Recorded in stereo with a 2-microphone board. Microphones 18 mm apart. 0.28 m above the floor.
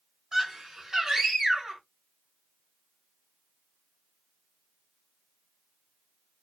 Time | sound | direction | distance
0.3 | a scream | 30° right (ahead or behind) | 1.4 m